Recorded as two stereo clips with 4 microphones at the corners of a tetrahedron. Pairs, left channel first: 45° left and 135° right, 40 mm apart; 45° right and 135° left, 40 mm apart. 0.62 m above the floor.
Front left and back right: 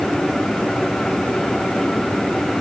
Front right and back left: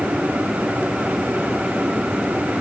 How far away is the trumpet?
No trumpet in this recording.